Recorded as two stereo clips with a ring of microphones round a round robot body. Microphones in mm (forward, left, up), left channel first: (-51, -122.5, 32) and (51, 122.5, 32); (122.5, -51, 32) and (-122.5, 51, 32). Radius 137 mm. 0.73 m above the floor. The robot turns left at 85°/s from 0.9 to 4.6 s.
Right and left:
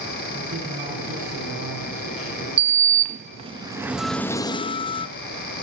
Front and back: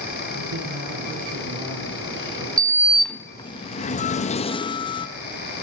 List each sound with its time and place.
0.3 s a man speaking: 135° left, 7.5 m; by 2.5 s 5° left, 7.5 m
2.6 s a sliding door: 105° left, 0.5 m; by 5.1 s 70° right, 0.5 m